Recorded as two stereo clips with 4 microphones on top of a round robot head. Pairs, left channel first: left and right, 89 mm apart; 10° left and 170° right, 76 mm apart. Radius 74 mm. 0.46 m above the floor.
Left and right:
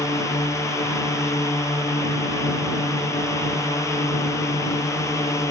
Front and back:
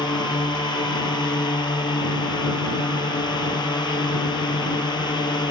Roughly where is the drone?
Ahead left.